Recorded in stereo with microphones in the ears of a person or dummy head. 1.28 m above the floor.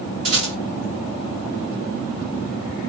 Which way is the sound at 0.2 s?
35° right (ahead or behind).